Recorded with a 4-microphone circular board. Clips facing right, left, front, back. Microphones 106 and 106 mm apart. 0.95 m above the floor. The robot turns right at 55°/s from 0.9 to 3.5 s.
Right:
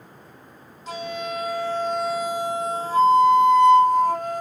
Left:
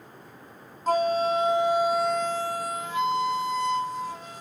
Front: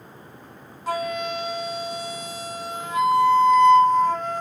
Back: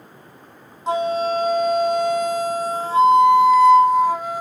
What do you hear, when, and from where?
0.9 s a flute: 115° left, 0.5 m; by 4.4 s 100° right, 0.5 m